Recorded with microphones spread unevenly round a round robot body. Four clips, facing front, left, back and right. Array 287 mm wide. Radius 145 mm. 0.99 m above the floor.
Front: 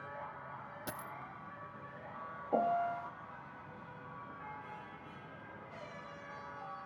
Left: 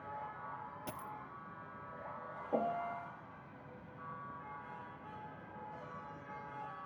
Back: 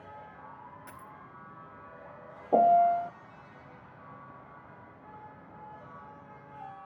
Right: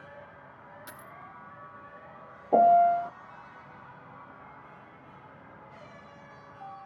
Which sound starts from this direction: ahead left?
A dropped coin, at 0.9 s.